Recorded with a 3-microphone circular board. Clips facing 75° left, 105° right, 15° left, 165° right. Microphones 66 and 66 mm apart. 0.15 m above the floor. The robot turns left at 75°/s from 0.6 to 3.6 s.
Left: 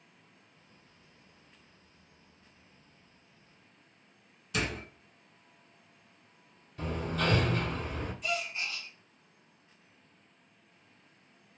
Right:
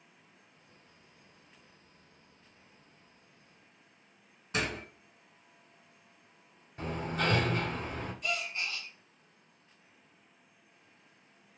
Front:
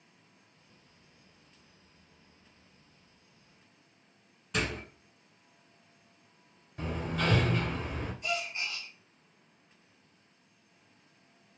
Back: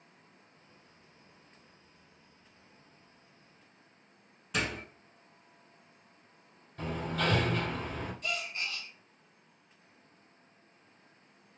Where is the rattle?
No rattle in this recording.